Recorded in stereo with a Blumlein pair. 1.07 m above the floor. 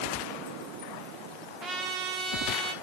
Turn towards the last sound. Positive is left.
turn(degrees=-15)